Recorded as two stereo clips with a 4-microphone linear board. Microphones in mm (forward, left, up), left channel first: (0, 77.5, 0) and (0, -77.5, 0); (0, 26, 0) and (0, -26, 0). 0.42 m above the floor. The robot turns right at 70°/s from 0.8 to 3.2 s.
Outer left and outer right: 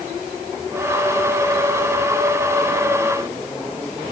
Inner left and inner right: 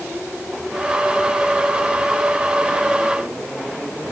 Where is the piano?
I don't hear a piano.